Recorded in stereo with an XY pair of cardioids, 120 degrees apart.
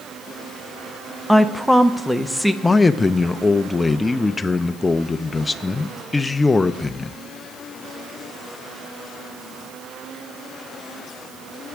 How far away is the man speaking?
About 0.7 m.